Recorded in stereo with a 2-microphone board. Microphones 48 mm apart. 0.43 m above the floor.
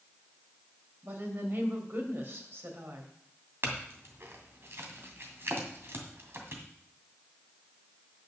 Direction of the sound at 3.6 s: 55° right (ahead or behind).